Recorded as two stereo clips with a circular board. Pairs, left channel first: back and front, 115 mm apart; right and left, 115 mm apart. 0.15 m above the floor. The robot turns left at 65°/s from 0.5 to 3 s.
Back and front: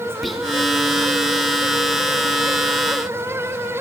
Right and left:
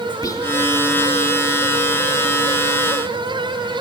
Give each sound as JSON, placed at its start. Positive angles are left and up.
{"t": 0.2, "sound": "whispering", "azimuth_deg": -90, "distance_m": 1.4}